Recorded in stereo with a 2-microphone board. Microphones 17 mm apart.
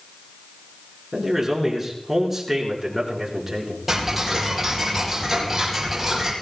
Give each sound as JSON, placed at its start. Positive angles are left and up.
{"t": 1.1, "sound": "a man speaking", "side_deg": -15, "distance_m": 4.5}
{"t": 3.9, "sound": "ticking", "side_deg": -15, "distance_m": 5.0}